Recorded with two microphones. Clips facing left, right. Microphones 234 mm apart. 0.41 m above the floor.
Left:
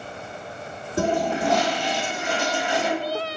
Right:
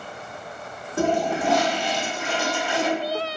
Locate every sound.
1.0 s a toilet flushing: 15° left (ahead or behind), 1.3 m